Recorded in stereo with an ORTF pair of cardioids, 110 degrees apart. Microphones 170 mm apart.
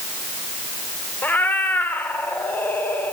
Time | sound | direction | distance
1.2 | a cat meowing | 10° left | 1.5 m